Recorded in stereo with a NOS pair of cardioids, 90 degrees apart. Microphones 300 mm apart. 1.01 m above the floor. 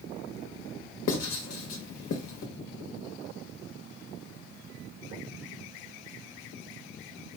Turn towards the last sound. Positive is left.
turn(degrees=60)